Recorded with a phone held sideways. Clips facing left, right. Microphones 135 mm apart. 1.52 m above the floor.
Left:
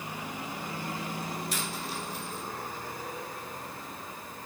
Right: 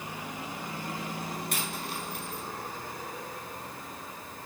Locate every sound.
1.5 s a dropped coin: 55° right (ahead or behind), 5.5 m